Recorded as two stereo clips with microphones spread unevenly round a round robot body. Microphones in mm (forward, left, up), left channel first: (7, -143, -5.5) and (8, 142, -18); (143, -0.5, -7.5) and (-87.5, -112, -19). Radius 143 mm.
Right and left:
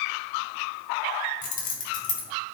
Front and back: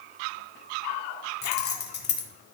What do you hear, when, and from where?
1.4 s keys jangling: 25° right, 1.6 m